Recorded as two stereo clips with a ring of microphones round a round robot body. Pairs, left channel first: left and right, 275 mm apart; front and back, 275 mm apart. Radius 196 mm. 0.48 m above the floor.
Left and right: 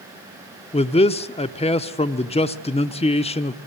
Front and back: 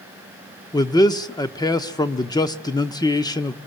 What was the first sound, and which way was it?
A man speaking, 55° left.